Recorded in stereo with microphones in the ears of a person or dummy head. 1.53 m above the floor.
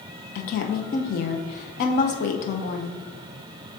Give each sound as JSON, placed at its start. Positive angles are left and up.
{"t": 0.3, "sound": "a woman speaking", "side_deg": 50, "distance_m": 0.7}